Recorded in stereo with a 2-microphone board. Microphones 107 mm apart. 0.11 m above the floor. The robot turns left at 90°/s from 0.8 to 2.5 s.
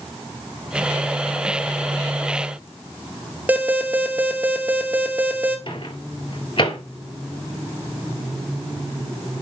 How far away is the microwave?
About 1.9 m.